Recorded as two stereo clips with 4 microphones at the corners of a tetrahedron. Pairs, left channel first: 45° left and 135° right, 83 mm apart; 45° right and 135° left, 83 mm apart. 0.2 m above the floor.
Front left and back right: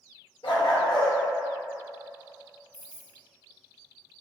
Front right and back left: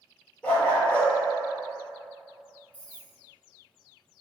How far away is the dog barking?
About 0.9 m.